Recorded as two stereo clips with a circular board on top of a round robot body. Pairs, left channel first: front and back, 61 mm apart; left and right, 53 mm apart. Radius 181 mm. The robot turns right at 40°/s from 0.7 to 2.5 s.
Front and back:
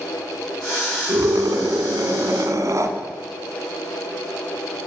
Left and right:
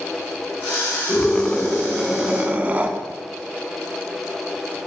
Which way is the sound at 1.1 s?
155° left.